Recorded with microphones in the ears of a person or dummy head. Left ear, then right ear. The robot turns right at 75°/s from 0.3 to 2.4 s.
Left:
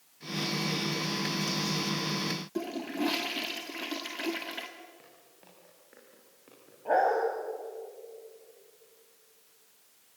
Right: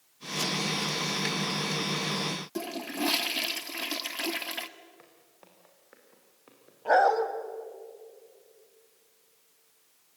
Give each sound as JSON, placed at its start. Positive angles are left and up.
{"t": 2.5, "sound": "a toilet flushing", "side_deg": -25, "distance_m": 1.2}
{"t": 5.0, "sound": "footsteps", "side_deg": -45, "distance_m": 5.0}
{"t": 6.8, "sound": "a dog barking", "side_deg": -65, "distance_m": 2.0}